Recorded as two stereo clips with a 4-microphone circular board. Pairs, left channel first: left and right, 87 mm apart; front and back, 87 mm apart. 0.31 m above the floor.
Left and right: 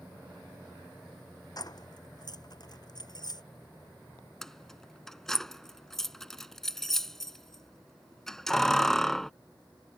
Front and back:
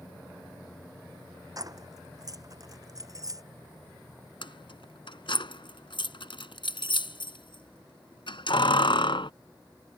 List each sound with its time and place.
1.6 s keys jangling: 130° left
4.4 s keys jangling: 5° left